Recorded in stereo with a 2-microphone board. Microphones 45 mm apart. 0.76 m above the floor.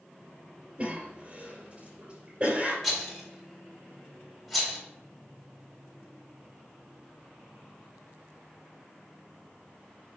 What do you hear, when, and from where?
0.8 s a cough: 35° right (ahead or behind), 2.5 m
2.8 s a rattle: centre (ahead or behind), 1.8 m